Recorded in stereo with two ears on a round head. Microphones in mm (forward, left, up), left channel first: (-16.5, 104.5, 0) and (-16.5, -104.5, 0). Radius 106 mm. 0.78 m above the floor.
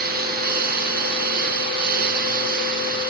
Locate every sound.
0.0 s a lawn mower: 40° right (ahead or behind)